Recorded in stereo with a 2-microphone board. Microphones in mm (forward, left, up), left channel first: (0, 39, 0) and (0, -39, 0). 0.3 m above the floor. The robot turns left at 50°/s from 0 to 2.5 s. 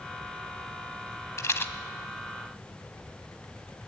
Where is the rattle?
40° left (ahead or behind), 0.8 m; by 1.7 s 25° left (ahead or behind), 0.8 m.